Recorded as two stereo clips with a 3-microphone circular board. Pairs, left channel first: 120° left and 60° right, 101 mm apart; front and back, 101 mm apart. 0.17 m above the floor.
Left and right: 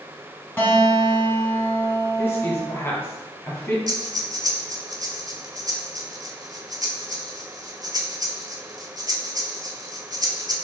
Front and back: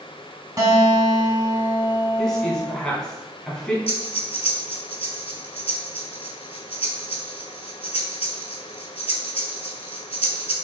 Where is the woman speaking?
75° left, 1.2 m.